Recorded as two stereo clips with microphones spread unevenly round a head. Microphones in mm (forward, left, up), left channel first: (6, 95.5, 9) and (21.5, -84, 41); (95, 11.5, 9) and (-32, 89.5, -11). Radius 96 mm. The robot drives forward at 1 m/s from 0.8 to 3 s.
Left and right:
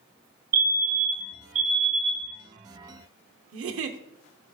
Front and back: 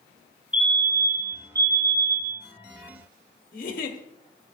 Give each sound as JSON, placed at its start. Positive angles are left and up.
{"t": 0.5, "sound": "a fire alarm", "azimuth_deg": -130, "distance_m": 3.0}
{"t": 3.5, "sound": "a giggle", "azimuth_deg": -80, "distance_m": 1.0}